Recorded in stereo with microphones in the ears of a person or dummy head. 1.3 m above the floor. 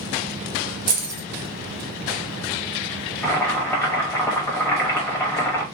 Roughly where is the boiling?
Centre.